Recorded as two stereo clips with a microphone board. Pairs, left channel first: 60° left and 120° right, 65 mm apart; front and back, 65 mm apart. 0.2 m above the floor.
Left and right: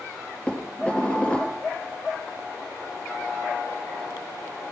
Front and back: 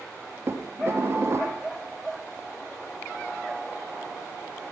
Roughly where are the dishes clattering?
Behind left.